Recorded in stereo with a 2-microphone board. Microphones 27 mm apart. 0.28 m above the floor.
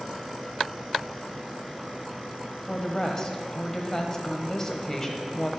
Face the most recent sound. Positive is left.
turn(degrees=25)  # may be behind; listen again after turning